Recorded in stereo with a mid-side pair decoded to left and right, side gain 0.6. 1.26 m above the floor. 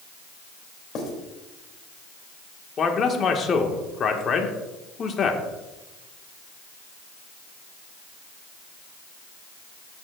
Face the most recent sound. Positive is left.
turn(degrees=40)